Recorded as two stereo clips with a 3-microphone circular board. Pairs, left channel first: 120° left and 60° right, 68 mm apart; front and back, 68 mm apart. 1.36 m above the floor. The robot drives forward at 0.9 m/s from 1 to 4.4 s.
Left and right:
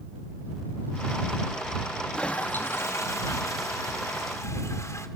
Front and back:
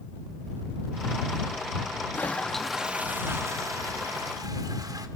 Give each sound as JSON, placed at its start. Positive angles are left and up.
{"t": 2.1, "sound": "a toilet flushing", "azimuth_deg": 50, "distance_m": 1.0}